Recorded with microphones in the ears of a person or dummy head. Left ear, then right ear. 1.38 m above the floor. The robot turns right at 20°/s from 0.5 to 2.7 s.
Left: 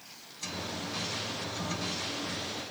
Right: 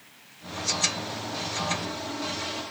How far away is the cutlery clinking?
I don't hear cutlery clinking.